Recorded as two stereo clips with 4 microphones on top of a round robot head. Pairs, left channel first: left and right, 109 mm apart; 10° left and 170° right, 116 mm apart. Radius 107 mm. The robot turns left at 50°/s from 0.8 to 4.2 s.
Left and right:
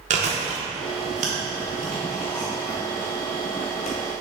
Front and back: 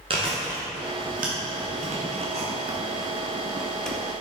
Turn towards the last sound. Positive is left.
turn(degrees=75)